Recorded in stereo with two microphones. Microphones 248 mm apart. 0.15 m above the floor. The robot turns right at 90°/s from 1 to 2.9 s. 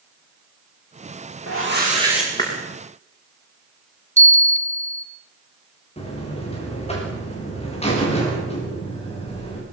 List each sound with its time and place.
1.5 s a whoosh: 70° right, 8.5 m; by 2.5 s 30° left, 8.5 m
4.2 s a bell: 50° left (ahead or behind), 2.0 m
6.0 s a buzzer: 25° left (ahead or behind), 8.5 m